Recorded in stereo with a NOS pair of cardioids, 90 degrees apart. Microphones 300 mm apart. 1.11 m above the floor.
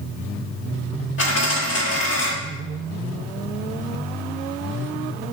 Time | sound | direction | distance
1.2 | a dropped coin | 40° left | 1.5 m